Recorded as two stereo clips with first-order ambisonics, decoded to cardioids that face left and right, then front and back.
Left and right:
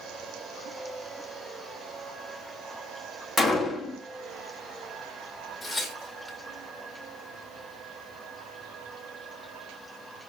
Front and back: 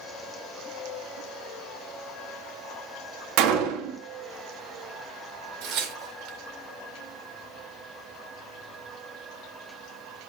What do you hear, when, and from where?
3.4 s a gunshot: 175° left, 1.2 m
5.6 s tearing paper: straight behind, 1.8 m